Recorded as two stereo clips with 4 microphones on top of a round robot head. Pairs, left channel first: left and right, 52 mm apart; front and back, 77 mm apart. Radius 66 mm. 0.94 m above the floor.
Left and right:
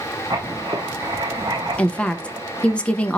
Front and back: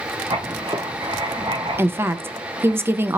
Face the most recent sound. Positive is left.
turn(degrees=150)